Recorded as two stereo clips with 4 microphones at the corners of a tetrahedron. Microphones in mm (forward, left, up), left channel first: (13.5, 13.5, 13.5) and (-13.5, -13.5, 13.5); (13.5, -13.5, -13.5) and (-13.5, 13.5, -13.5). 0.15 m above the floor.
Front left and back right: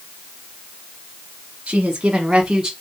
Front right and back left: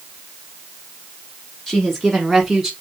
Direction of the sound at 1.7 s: 115° right.